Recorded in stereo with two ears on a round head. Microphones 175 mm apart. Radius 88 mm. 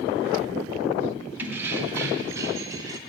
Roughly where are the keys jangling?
Centre.